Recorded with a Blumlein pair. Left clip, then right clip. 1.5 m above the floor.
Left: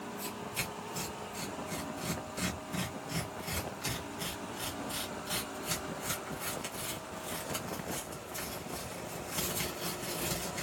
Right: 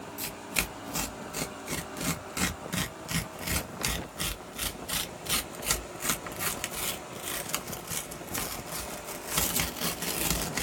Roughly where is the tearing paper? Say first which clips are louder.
Right 7 dB; ahead right.